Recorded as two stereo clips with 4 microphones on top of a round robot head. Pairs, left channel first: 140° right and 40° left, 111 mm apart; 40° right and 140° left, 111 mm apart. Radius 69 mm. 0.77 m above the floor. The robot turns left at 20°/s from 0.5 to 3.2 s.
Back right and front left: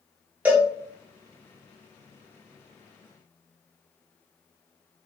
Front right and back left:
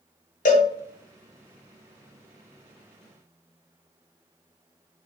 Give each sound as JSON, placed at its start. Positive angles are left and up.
{"t": 0.5, "sound": "a cowbell", "azimuth_deg": -35, "distance_m": 0.5}